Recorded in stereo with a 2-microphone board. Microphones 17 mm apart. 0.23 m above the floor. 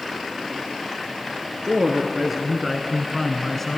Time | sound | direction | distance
1.7 | a woman speaking | 30° right (ahead or behind) | 3 m